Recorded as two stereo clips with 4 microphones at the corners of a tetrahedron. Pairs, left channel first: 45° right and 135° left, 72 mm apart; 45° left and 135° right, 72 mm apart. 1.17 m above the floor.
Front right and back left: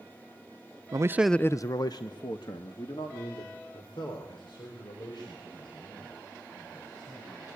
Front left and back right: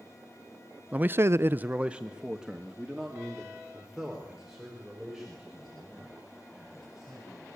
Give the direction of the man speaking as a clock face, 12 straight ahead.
7 o'clock.